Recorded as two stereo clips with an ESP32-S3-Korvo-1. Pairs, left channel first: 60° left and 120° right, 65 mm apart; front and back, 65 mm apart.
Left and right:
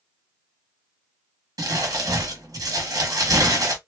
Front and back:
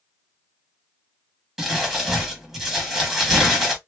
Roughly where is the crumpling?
Right.